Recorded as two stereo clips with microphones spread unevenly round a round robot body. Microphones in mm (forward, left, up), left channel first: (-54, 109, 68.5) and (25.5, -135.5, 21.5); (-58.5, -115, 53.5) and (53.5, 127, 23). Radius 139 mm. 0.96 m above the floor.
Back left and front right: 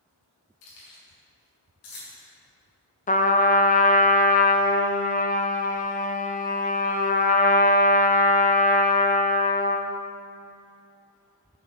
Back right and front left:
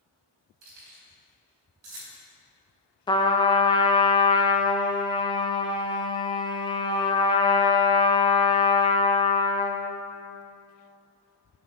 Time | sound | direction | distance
0.6 | keys jangling | 105° left | 4 m
3.1 | a trumpet | 170° left | 0.8 m